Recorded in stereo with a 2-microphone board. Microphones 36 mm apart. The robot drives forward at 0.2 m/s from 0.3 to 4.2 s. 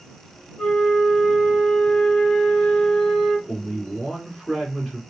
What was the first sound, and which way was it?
A flute, 35° left (ahead or behind).